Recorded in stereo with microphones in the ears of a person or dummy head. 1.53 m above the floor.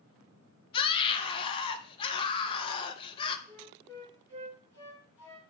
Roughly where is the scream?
Left.